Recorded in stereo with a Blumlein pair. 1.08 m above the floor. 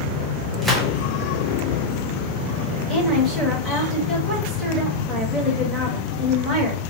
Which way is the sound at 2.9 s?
Straight ahead.